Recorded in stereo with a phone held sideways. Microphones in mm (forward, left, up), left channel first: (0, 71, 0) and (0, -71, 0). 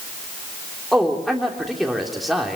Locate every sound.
0.9 s a man speaking: centre (ahead or behind), 3 m